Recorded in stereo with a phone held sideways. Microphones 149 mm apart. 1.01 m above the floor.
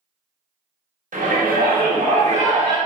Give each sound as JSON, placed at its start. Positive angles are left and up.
{"t": 1.1, "sound": "a shout", "side_deg": -60, "distance_m": 1.0}